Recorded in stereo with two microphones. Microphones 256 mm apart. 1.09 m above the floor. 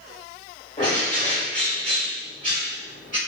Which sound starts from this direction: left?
A bird, at 0.8 s.